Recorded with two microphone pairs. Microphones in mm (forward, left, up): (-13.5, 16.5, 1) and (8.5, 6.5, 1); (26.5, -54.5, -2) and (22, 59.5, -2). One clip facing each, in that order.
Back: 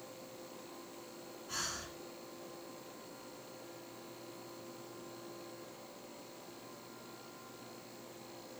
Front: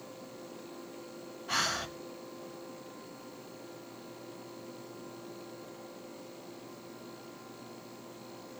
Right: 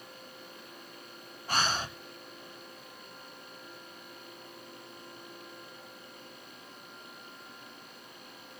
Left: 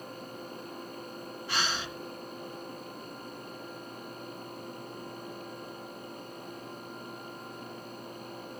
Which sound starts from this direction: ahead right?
Breathing, at 1.5 s.